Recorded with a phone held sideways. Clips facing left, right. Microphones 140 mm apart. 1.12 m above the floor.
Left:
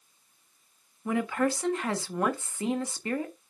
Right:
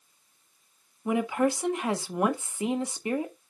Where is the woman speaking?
15° right (ahead or behind), 1.4 m.